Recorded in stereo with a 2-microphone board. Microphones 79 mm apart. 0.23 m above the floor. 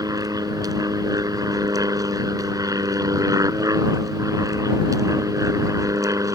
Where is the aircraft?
55° right (ahead or behind); by 6.3 s 45° right (ahead or behind).